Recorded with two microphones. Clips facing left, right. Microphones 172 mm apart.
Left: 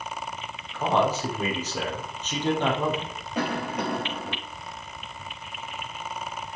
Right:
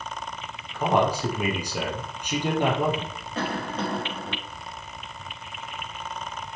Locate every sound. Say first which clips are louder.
0.7 s a man speaking: right 1 dB; 10° right (ahead or behind), 3.5 m
3.4 s a cough: left 1 dB; 15° left (ahead or behind), 2.5 m